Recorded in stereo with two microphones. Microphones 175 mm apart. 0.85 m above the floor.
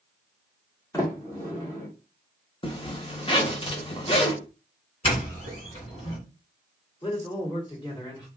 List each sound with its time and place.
0.9 s a sliding door: 20° left (ahead or behind), 1.1 m
2.6 s a zipper: 30° left (ahead or behind), 0.7 m
5.0 s a doorbell: 40° left (ahead or behind), 2.0 m
7.0 s a man speaking: 30° left (ahead or behind), 2 m